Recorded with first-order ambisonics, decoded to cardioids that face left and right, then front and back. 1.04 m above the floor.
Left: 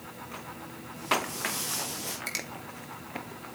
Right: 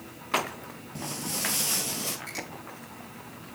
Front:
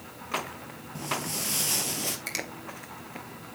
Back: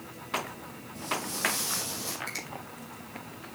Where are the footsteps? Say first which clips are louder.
Left 5 dB, even; 65° right, 1.5 m; by 2.2 s 25° right, 1.6 m.